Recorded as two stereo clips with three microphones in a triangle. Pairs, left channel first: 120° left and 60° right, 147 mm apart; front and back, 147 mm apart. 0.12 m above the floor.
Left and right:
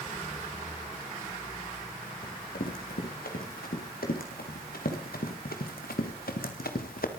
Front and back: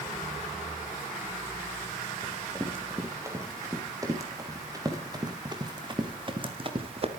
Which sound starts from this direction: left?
Running footsteps, at 2.2 s.